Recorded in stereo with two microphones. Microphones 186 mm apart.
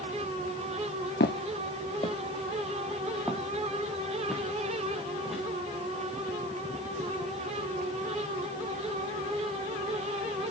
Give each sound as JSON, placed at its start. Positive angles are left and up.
{"t": 1.2, "sound": "footsteps", "side_deg": 70, "distance_m": 0.8}